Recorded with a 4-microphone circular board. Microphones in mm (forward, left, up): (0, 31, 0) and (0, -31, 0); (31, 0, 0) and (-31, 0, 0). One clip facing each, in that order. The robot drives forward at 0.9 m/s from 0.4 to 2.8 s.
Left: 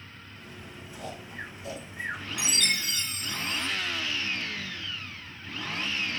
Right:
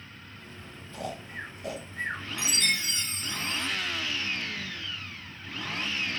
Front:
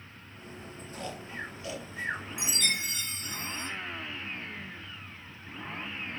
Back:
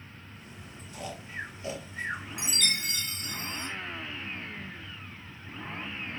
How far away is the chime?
About 1.4 m.